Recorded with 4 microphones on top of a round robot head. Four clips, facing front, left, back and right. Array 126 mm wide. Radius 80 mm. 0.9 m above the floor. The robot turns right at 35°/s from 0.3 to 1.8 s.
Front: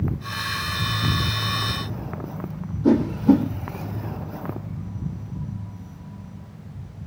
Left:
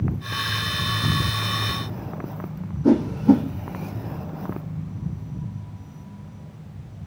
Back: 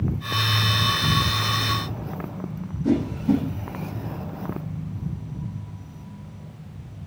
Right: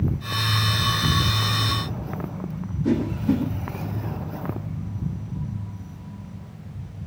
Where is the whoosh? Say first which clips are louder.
Left 6 dB, front 5 dB; 40° left, 4 m.